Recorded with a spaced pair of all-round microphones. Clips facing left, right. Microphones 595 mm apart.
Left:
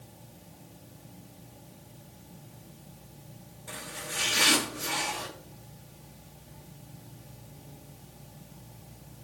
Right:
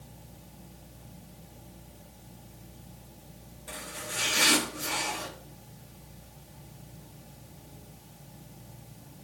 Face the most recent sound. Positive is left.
turn(degrees=25)  # may be behind; listen again after turning